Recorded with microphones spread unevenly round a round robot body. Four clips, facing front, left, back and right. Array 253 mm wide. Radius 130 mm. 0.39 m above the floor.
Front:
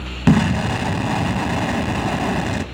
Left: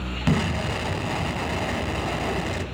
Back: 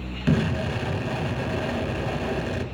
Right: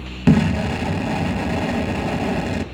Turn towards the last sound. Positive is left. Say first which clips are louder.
# right 8 dB, front 7 dB
turn(degrees=-40)